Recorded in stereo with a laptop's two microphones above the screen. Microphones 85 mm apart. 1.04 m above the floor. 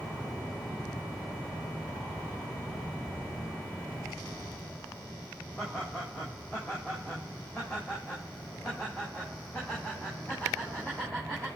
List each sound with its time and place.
5.6 s laughter: 20° left (ahead or behind), 4.5 m